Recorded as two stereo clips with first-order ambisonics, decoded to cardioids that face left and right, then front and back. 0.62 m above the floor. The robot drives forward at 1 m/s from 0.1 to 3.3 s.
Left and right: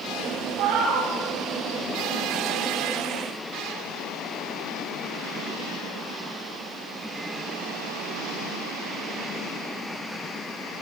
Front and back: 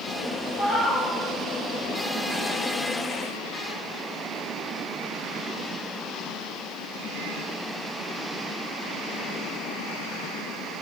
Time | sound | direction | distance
0.6 | a cat meowing | 60° right | 3 m